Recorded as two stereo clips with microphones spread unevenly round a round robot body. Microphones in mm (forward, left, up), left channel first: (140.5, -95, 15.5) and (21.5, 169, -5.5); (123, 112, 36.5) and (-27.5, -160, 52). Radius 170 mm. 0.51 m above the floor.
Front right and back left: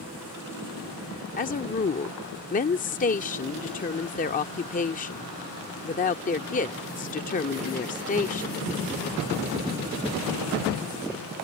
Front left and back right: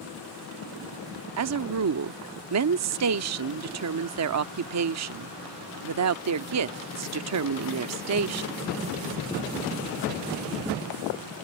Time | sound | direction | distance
1.4 | a woman speaking | 125° right | ?